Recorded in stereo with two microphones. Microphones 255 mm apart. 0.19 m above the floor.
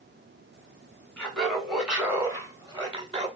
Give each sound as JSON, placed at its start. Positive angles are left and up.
{"t": 1.2, "sound": "laughter", "side_deg": 5, "distance_m": 1.2}